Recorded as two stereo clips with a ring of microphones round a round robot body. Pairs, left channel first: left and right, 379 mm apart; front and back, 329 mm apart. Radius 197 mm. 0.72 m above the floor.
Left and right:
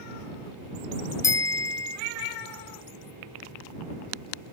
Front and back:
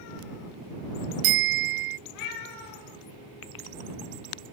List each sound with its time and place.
1.2 s a bicycle bell: 170° left